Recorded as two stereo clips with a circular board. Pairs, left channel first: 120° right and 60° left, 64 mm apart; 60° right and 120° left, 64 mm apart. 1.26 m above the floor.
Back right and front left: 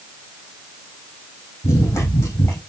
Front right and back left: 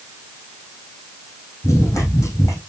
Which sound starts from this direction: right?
Running footsteps, at 1.6 s.